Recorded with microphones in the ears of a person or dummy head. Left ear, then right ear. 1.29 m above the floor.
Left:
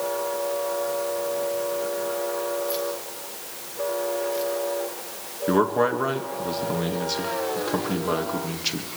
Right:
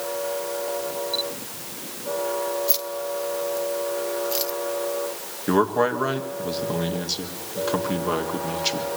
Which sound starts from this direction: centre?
A man speaking, at 5.5 s.